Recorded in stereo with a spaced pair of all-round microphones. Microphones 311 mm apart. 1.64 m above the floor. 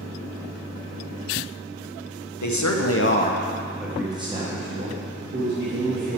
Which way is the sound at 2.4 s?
75° left (ahead or behind).